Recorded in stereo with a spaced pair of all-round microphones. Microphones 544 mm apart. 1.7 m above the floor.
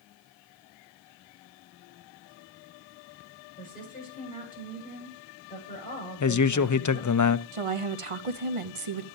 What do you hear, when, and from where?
3.6 s a woman speaking: 15° left (ahead or behind), 8 m
6.2 s a man speaking: 35° left (ahead or behind), 0.5 m
7.5 s a woman speaking: 70° right (ahead or behind), 0.8 m